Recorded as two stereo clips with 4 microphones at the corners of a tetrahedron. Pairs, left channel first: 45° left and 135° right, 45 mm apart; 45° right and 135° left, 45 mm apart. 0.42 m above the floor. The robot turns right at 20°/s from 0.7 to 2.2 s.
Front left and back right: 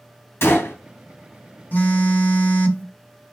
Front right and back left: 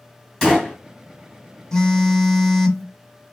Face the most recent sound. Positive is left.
turn(degrees=35)